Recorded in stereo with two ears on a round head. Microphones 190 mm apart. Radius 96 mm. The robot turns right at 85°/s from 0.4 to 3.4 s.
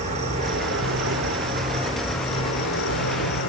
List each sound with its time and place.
0.0 s an insect: 145° right, 1.1 m; by 3.5 s 110° left, 1.1 m